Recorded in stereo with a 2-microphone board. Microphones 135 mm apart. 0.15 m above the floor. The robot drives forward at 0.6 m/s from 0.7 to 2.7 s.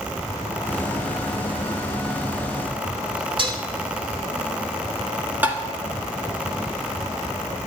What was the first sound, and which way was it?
Dishes clattering, 40° right (ahead or behind).